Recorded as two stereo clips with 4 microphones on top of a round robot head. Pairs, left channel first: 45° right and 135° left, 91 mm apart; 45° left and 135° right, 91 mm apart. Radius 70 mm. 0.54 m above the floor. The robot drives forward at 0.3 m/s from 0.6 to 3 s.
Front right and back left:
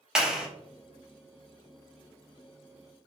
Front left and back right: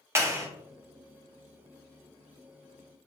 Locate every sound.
0.1 s a clap: 150° right, 1.1 m